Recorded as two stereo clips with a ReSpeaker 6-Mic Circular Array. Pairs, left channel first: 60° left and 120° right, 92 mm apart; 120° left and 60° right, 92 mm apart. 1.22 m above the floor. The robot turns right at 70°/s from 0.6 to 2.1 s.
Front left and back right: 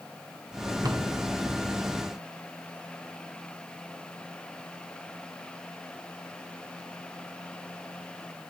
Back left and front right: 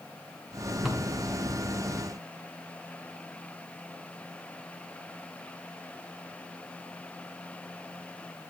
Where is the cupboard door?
150° right, 0.7 m; by 1.2 s 125° right, 0.7 m.